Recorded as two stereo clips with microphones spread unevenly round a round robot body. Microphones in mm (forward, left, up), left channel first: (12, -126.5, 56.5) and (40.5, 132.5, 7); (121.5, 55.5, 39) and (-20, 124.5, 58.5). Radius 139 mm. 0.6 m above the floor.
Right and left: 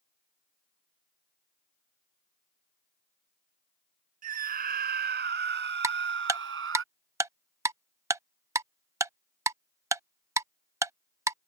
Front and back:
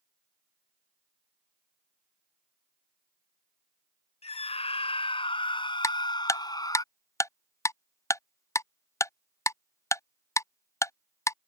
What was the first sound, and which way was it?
A scream, 25° left.